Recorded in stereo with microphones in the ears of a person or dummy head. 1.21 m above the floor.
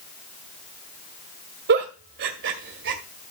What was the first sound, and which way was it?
A giggle, 55° right (ahead or behind).